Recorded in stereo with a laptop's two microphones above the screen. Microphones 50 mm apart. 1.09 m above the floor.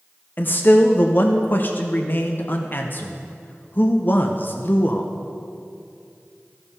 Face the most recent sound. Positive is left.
turn(degrees=45)  # may be behind; listen again after turning